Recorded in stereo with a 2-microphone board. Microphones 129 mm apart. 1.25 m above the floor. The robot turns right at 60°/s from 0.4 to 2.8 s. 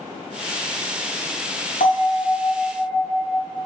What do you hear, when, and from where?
1.8 s a bell: 100° left, 1.5 m; by 3.5 s 160° left, 1.5 m